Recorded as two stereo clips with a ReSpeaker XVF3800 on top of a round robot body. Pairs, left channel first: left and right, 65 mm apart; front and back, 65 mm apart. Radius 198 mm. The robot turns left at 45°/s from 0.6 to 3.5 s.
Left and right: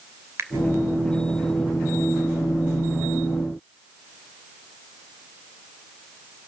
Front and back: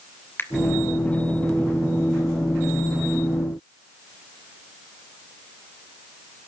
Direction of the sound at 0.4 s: 50° right.